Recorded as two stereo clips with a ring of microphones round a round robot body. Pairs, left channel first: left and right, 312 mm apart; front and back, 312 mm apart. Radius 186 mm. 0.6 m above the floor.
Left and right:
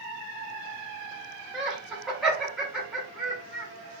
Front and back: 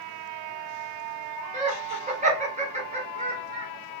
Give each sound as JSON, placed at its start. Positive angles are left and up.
{"t": 1.5, "sound": "laughter", "azimuth_deg": -175, "distance_m": 1.0}